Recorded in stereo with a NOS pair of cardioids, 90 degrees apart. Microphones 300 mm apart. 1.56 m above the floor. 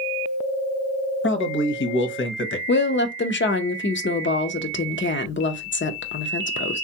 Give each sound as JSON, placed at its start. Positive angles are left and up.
{"t": 1.2, "sound": "a man speaking", "azimuth_deg": 40, "distance_m": 0.9}
{"t": 2.7, "sound": "a woman speaking", "azimuth_deg": 40, "distance_m": 0.6}